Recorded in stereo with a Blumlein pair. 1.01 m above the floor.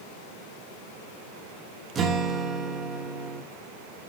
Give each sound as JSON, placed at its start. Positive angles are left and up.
{"t": 1.9, "sound": "a guitar", "azimuth_deg": -20, "distance_m": 1.5}